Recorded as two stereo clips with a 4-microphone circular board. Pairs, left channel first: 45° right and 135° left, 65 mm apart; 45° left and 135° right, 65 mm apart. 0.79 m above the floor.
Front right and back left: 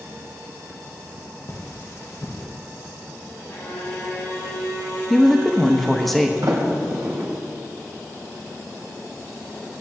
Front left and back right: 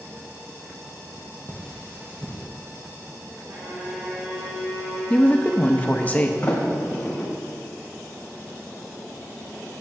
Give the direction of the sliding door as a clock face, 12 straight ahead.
8 o'clock.